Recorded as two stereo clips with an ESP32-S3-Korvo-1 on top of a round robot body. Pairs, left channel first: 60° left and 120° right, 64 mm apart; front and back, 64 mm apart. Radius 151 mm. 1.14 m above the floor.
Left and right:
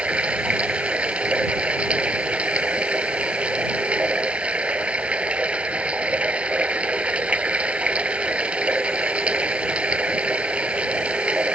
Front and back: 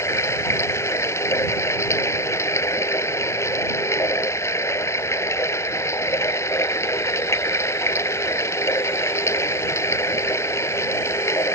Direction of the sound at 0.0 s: 45° right.